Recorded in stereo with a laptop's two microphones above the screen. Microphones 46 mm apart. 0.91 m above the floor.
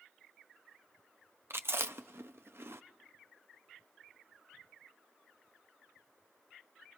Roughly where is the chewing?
Right.